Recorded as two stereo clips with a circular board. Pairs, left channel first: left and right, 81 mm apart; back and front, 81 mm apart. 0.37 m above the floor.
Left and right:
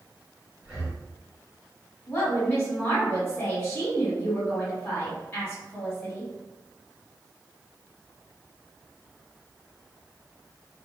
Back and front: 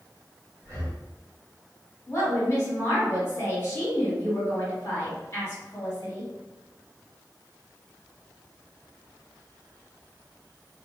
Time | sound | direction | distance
0.6 | breathing | 5° right | 1.8 m
2.1 | a woman speaking | 130° left | 1.9 m